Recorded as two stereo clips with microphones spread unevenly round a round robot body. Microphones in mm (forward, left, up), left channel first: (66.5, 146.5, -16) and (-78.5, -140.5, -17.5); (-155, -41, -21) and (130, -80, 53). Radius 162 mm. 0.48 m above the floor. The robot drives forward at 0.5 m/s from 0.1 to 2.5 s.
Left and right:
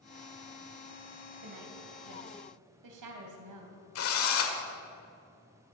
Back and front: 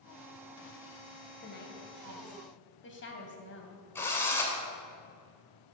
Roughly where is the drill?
Left.